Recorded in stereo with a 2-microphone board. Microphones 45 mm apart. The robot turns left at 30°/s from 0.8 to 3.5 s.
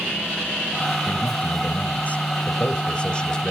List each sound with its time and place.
1.1 s a man speaking: 100° left, 1.2 m; by 3.5 s 25° left, 1.2 m